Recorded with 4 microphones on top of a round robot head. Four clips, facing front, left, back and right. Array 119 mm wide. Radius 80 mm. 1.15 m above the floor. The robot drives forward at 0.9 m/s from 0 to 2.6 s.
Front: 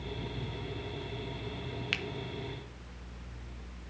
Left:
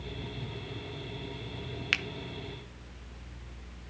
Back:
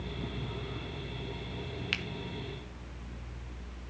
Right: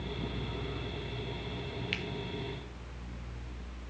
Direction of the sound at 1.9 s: 95° left.